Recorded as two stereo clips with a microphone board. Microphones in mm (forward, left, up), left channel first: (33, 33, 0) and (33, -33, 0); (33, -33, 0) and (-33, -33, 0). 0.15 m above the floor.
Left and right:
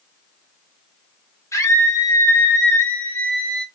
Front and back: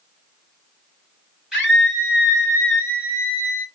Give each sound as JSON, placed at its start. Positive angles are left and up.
{"t": 1.5, "sound": "a scream", "azimuth_deg": 105, "distance_m": 2.5}